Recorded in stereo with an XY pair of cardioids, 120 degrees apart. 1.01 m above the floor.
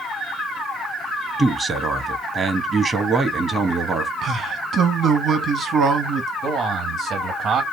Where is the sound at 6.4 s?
60° right, 1.8 m.